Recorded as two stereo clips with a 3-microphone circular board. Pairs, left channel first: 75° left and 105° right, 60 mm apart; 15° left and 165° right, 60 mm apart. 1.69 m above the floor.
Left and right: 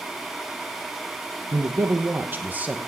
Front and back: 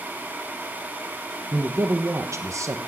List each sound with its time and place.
1.5 s a man speaking: 125° right, 1.2 m; by 2.9 s 170° right, 1.2 m